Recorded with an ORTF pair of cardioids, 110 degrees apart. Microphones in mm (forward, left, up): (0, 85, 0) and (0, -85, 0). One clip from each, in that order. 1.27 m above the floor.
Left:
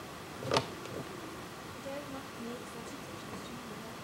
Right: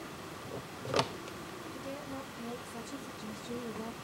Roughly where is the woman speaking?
Ahead.